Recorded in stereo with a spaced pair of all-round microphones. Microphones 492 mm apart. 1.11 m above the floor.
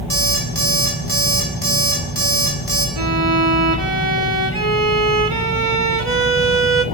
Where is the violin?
75° right (ahead or behind), 1.3 m.